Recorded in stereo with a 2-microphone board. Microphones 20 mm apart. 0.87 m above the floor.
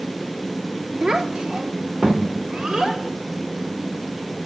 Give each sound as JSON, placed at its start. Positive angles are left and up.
{"t": 1.0, "sound": "a child speaking", "side_deg": -35, "distance_m": 1.4}